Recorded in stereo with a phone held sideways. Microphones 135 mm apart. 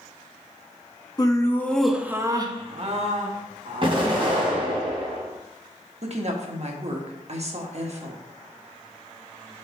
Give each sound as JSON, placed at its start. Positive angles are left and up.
{"t": 1.2, "sound": "laughter", "side_deg": 30, "distance_m": 1.1}
{"t": 3.8, "sound": "an explosion", "side_deg": -45, "distance_m": 2.0}
{"t": 6.0, "sound": "a woman speaking", "side_deg": -55, "distance_m": 1.1}